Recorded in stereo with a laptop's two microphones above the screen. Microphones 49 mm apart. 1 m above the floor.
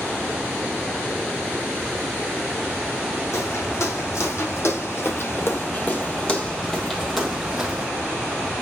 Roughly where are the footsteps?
Left.